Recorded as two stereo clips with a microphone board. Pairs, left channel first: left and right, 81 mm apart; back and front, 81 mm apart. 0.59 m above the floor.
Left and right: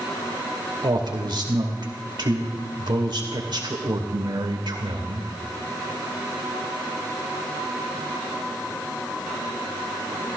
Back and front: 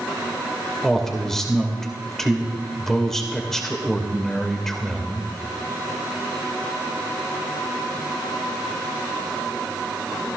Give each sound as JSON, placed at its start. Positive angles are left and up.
{"t": 0.8, "sound": "a man speaking", "azimuth_deg": -95, "distance_m": 2.5}